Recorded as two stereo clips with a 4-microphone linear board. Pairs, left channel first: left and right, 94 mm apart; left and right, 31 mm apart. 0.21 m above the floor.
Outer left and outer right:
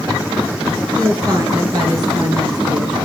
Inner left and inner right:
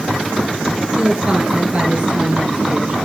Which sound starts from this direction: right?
A woman speaking, at 1.0 s.